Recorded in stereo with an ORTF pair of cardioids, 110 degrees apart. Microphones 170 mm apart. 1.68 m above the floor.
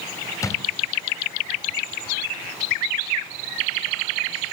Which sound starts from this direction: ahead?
A drawer, at 0.4 s.